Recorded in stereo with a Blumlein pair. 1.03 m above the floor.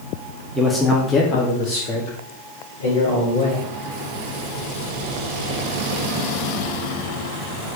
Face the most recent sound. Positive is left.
turn(degrees=60)